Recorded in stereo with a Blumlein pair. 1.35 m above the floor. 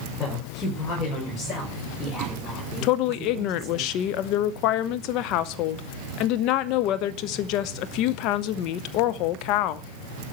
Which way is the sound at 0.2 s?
20° left.